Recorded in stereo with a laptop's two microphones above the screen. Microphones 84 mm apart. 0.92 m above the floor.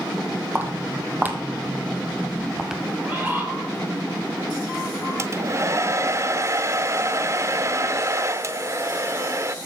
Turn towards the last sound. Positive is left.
turn(degrees=-35)  # may be behind; listen again after turning